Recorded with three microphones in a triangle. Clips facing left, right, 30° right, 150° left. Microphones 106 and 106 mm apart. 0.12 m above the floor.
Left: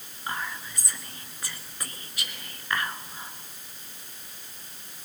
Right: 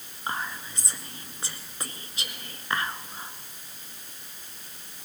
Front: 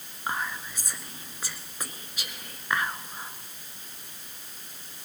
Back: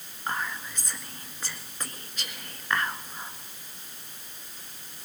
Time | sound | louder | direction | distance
0.3 | whispering | right 1 dB, even | 100° right | 1.2 m